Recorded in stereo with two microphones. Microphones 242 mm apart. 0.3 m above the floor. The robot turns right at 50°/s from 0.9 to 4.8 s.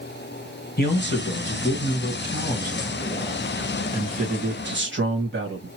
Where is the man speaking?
55° left, 1.5 m; by 5.7 s 110° right, 1.5 m.